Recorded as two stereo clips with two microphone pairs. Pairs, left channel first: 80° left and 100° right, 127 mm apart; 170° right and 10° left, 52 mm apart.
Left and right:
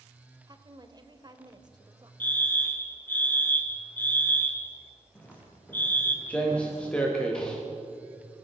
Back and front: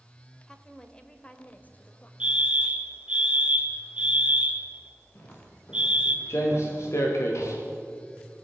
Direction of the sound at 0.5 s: 100° right.